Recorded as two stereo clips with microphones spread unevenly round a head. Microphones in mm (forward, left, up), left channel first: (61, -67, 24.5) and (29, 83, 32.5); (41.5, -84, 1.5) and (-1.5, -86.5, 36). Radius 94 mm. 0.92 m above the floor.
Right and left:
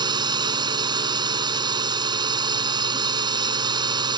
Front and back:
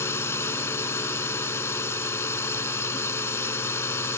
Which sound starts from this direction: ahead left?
A drone, at 0.0 s.